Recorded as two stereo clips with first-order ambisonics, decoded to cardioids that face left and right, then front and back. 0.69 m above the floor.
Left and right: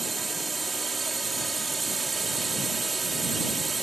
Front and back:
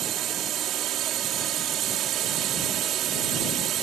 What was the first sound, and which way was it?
A drone, 165° right.